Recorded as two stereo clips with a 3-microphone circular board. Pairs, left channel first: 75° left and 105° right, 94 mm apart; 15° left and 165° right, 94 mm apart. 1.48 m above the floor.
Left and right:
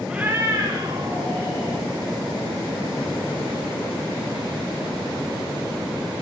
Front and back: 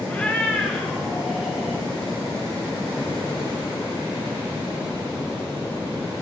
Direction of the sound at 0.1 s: 35° right.